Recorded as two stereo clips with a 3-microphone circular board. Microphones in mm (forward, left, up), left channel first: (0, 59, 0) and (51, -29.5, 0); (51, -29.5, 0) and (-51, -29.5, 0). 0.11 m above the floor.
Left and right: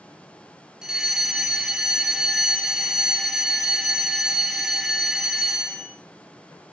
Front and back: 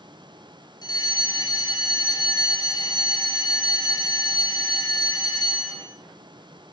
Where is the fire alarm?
20° left, 3 m.